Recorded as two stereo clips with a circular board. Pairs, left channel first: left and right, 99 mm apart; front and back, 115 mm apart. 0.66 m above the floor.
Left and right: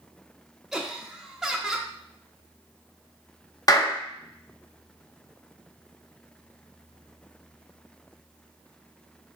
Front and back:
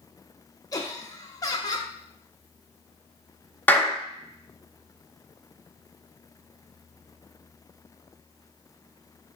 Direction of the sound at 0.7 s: 5° right.